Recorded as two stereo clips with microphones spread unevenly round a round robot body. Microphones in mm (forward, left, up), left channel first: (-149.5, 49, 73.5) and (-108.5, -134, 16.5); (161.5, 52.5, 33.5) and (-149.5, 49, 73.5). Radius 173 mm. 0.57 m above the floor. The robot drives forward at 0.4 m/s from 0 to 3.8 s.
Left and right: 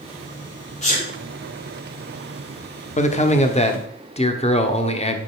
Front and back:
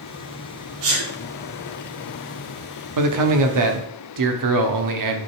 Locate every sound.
0.8 s a sneeze: 165° left, 1.8 m
3.0 s a man speaking: 165° left, 1.4 m